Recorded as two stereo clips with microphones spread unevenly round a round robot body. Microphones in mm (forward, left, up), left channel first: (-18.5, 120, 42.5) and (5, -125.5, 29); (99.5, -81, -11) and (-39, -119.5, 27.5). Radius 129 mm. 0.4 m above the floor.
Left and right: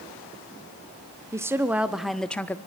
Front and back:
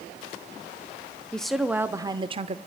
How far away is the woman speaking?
About 0.8 m.